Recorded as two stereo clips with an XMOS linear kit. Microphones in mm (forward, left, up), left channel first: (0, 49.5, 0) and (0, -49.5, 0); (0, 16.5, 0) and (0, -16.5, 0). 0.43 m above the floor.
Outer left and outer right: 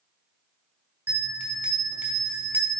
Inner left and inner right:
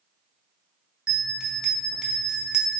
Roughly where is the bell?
Centre.